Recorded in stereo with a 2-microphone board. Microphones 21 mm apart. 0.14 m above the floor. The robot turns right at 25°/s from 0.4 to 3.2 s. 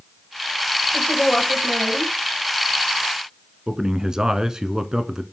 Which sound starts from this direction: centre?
A woman speaking, at 0.9 s.